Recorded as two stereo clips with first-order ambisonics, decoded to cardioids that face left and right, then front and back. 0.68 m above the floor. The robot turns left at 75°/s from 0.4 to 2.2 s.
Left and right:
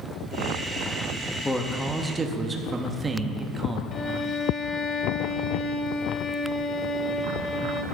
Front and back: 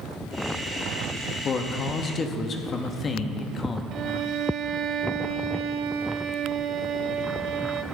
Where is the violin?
145° left, 0.6 m.